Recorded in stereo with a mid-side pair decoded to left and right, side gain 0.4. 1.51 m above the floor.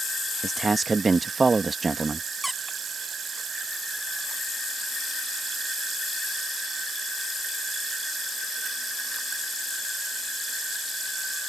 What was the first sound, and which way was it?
A man speaking, 35° right.